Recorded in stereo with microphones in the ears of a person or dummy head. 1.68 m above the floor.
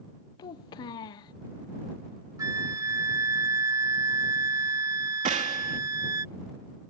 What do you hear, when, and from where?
0.4 s a child speaking: 25° left (ahead or behind)
2.4 s a flute: 15° right (ahead or behind)
5.2 s a gunshot: 30° right (ahead or behind)